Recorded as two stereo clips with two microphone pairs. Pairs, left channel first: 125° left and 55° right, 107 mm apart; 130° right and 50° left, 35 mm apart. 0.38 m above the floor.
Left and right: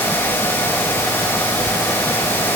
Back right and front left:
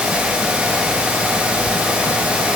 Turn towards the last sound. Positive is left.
No sound to turn to.